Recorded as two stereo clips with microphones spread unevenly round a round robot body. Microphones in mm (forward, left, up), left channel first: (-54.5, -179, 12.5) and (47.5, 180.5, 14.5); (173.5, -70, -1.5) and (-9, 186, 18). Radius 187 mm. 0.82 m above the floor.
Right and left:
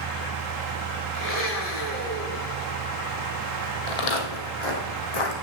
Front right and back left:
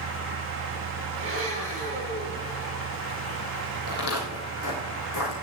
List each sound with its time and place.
1.1 s a blender: 165° right, 4 m
3.9 s footsteps: 105° right, 1.9 m; by 5.3 s 100° right, 2.5 m